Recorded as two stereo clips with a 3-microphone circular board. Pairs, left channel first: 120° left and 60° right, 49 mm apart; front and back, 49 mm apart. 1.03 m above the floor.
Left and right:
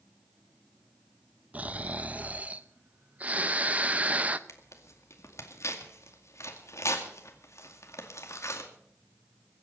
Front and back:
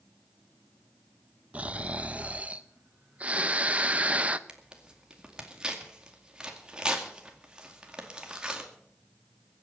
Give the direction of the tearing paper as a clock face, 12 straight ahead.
8 o'clock.